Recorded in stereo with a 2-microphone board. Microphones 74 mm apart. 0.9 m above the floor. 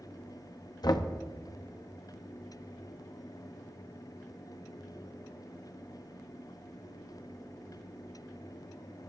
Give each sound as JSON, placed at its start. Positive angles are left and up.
{"t": 0.8, "sound": "knocking", "side_deg": 65, "distance_m": 0.7}